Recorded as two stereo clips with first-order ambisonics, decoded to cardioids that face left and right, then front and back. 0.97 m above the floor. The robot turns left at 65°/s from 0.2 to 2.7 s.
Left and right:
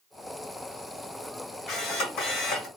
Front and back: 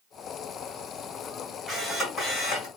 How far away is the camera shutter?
About 1.4 m.